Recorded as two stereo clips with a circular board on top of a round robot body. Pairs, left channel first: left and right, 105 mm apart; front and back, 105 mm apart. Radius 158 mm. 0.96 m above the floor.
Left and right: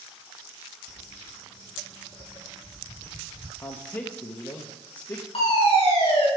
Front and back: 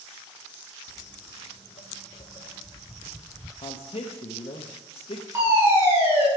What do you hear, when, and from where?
0.9 s footsteps: 55° left, 2 m; by 3.5 s 75° right, 1.1 m
3.6 s a man speaking: 30° left, 1.4 m
5.3 s a fire alarm: 115° left, 7 m